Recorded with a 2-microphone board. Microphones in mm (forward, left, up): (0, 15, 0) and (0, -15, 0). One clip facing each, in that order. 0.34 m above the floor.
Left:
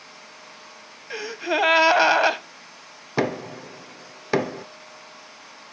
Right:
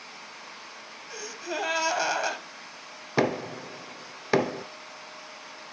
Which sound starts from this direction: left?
A gasp, at 1.1 s.